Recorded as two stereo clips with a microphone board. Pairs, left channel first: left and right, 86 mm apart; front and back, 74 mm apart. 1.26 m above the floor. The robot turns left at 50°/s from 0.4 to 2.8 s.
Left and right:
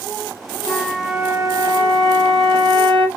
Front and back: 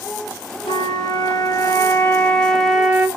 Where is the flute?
5° left, 0.6 m; by 3.1 s 100° right, 0.6 m.